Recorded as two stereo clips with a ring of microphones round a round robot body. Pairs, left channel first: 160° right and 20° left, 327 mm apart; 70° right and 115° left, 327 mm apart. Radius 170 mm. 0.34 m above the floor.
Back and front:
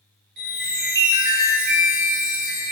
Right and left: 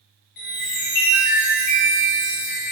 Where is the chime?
40° right, 1.6 m.